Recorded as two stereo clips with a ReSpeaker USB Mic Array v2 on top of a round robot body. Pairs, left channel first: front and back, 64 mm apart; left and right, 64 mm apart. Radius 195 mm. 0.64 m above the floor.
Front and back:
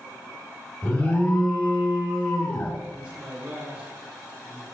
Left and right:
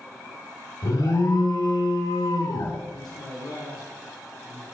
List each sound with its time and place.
0.8 s an alarm: 70° left, 4.5 m
2.9 s a man speaking: 105° left, 9 m